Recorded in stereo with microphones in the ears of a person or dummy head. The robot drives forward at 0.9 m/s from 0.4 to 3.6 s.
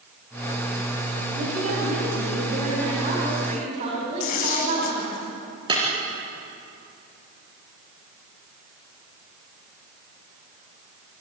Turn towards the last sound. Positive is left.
turn(degrees=-30)  # may be behind; listen again after turning